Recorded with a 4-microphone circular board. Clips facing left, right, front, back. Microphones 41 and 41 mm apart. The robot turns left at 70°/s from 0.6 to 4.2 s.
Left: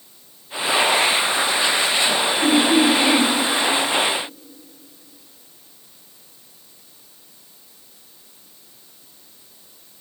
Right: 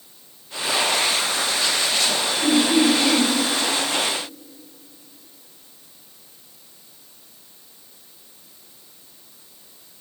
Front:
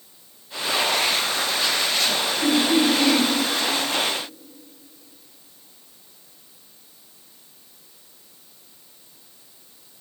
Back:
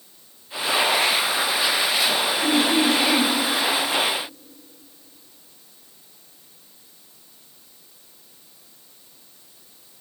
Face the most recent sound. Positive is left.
turn(degrees=-65)